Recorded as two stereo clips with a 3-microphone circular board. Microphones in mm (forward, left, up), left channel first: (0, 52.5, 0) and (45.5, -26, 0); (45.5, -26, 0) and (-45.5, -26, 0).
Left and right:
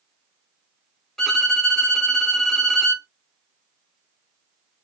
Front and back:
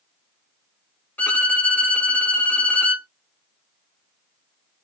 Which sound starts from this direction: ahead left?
A violin, at 1.2 s.